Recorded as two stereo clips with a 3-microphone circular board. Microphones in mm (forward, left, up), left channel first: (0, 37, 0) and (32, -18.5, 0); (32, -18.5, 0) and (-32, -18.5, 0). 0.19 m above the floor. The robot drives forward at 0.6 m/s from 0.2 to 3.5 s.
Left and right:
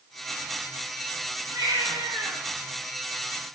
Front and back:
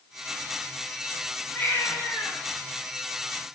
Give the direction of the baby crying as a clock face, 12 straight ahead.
2 o'clock.